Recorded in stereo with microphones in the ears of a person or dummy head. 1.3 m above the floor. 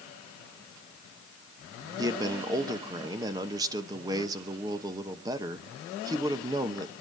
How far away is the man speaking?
About 1.0 m.